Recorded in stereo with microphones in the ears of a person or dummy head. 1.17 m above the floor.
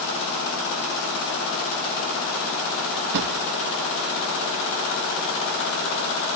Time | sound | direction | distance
3.1 | a drawer | 60° right (ahead or behind) | 0.6 m